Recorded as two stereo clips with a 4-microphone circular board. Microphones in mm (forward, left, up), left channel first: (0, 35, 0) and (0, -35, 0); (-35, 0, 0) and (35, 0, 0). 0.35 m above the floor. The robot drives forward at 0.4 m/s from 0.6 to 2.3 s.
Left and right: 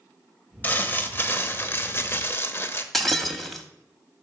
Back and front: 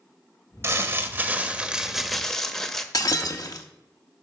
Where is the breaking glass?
175° left, 0.9 m.